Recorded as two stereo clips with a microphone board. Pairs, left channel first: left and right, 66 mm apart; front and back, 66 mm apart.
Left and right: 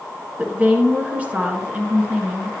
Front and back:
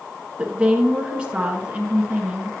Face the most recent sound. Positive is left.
turn(degrees=-130)